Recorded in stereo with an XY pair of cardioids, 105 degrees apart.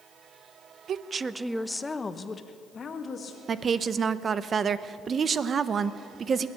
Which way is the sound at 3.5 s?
45° right.